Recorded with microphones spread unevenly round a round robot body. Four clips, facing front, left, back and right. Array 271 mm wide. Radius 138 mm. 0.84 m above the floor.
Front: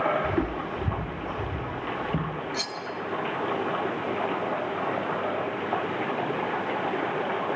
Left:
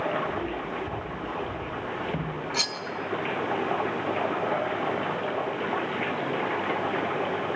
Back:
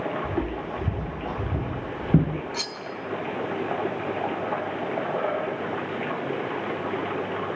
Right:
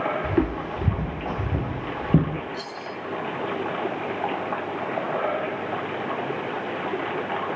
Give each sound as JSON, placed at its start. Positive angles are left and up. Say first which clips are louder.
{"t": 0.2, "sound": "footsteps", "louder": "right 6 dB, front 1 dB", "azimuth_deg": -70, "distance_m": 2.5}
{"t": 2.5, "sound": "cutlery clinking", "louder": "left 1 dB, front 1 dB", "azimuth_deg": 100, "distance_m": 5.0}